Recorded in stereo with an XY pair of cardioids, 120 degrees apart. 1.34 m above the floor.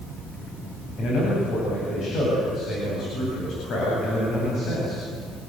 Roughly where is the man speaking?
Ahead left.